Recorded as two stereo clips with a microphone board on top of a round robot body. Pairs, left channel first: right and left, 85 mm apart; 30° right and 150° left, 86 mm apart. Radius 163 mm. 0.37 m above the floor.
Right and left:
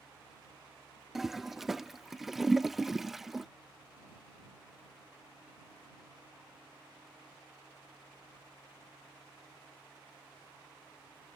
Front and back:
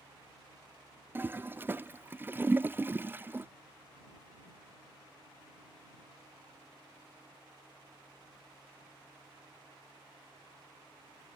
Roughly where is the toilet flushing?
Behind.